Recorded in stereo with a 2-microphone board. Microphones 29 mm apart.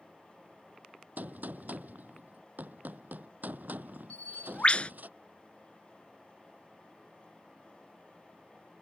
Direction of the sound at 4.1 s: 45° left (ahead or behind).